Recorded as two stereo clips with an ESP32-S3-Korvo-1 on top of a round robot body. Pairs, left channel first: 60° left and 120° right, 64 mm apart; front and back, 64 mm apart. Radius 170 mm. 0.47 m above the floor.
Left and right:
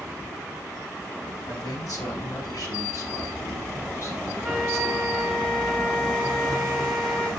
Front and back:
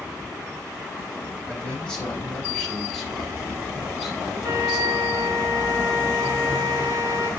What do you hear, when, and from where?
1.5 s a man speaking: 70° left, 4 m; by 5.2 s 105° left, 4 m
4.4 s a flute: 140° left, 1.9 m